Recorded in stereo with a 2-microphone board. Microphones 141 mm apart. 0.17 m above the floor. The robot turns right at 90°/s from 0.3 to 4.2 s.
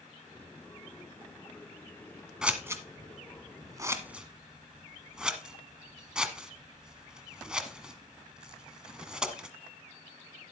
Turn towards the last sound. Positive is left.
turn(degrees=-5)  # may be behind; listen again after turning